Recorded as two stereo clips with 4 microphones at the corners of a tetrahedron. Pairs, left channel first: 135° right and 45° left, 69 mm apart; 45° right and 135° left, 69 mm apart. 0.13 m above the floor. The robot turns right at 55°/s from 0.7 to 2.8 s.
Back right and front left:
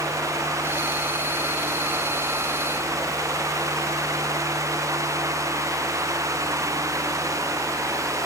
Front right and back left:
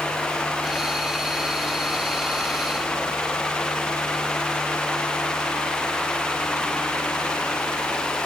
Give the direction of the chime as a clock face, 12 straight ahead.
I don't hear a chime.